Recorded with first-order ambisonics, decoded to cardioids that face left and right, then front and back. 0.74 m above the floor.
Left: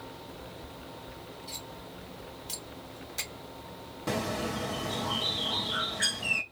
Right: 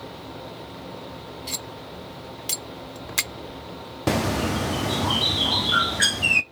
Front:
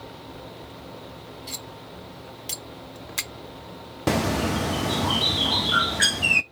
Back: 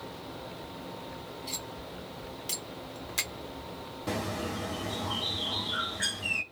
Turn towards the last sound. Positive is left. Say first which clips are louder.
# right 8 dB, front 10 dB
turn(degrees=-40)